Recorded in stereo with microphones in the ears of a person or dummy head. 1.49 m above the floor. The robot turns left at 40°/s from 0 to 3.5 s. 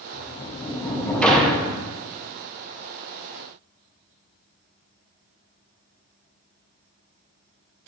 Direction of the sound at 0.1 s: 60° left.